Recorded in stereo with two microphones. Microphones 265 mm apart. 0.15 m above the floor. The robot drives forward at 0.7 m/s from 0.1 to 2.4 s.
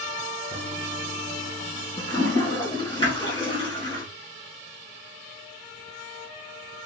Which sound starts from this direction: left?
A toilet flushing, at 0.5 s.